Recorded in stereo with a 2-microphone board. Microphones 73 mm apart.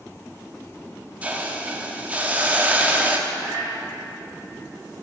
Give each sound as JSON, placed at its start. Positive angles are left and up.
{"t": 1.2, "sound": "a hiss", "side_deg": -20, "distance_m": 0.6}
{"t": 3.3, "sound": "a cat meowing", "side_deg": -35, "distance_m": 3.5}